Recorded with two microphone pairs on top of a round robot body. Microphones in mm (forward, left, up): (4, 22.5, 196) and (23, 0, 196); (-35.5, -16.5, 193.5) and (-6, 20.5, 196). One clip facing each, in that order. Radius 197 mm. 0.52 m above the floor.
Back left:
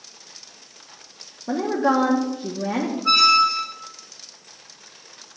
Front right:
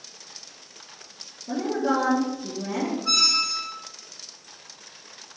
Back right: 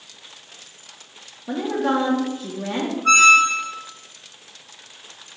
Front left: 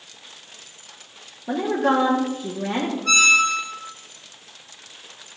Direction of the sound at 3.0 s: 175° right.